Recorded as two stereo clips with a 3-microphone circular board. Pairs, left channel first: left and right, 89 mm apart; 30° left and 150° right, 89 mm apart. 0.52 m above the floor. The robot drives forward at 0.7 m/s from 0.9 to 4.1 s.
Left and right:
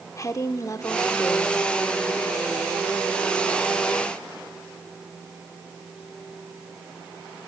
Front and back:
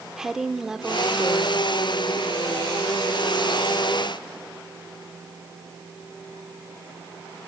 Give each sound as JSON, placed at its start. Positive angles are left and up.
{"t": 0.2, "sound": "a woman speaking", "azimuth_deg": 130, "distance_m": 1.1}